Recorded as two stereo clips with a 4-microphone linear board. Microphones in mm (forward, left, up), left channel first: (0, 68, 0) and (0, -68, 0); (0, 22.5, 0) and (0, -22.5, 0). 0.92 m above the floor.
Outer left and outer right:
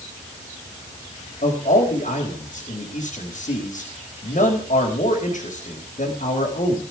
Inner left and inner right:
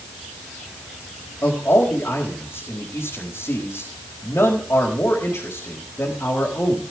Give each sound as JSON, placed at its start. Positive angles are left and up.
{"t": 1.4, "sound": "a man speaking", "side_deg": 75, "distance_m": 4.5}